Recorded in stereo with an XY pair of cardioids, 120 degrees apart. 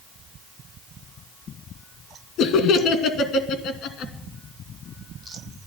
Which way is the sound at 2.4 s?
70° left.